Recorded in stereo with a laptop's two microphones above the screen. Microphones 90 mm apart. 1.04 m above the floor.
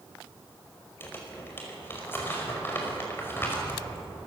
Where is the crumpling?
25° left (ahead or behind), 5.5 m.